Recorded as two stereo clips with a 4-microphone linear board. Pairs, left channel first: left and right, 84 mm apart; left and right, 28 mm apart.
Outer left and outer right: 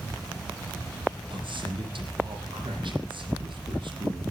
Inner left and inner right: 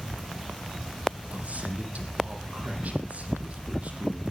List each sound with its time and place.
1.3 s a man speaking: 75° right (ahead or behind), 6 m